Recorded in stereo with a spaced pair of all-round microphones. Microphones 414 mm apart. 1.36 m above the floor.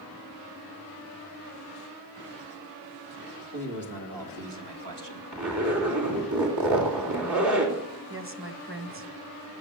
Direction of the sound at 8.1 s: 30° right (ahead or behind).